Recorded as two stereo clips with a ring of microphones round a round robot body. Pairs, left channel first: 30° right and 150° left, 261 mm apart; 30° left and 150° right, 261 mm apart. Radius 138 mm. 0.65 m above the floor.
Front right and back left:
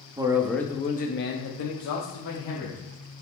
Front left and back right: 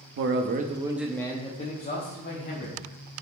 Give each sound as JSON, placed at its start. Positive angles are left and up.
{"t": 0.2, "sound": "a man speaking", "azimuth_deg": -140, "distance_m": 0.8}